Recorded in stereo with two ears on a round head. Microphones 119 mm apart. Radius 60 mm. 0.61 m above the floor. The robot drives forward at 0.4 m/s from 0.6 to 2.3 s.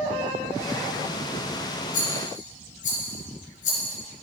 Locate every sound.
1.9 s a rattle: 70° left (ahead or behind), 3.5 m; by 4.0 s 65° left (ahead or behind), 3.5 m